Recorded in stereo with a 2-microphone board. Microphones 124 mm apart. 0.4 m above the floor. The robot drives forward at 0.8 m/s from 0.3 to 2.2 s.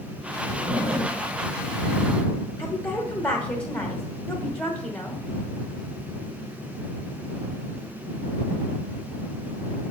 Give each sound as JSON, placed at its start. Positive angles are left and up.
{"t": 0.5, "sound": "a zipper", "side_deg": -65, "distance_m": 1.7}
{"t": 2.6, "sound": "a woman speaking", "side_deg": 20, "distance_m": 1.1}